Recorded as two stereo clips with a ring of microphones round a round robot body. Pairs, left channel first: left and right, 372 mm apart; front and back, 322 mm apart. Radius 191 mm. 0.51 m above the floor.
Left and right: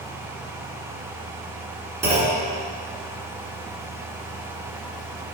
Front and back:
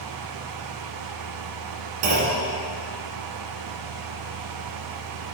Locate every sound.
2.0 s a clunk: 175° right, 1.5 m